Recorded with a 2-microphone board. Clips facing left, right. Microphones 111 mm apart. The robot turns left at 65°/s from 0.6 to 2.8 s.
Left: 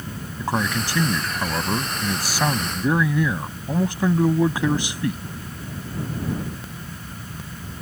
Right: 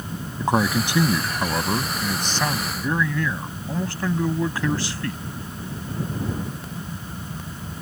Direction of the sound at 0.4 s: 20° right (ahead or behind).